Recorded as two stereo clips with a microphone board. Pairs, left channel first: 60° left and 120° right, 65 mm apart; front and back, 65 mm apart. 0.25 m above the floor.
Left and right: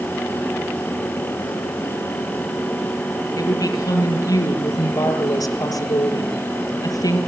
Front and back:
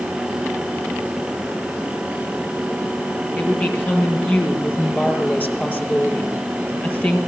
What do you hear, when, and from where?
3.4 s a woman speaking: 60° left, 6.5 m